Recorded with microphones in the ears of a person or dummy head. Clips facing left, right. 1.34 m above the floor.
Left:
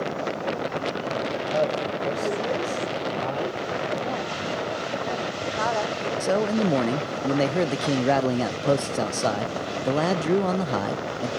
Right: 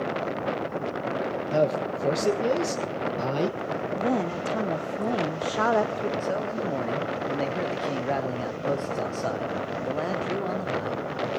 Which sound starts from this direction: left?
A man speaking, at 6.2 s.